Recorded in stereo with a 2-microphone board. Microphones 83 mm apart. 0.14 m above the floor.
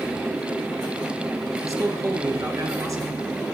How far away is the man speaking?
About 2.5 m.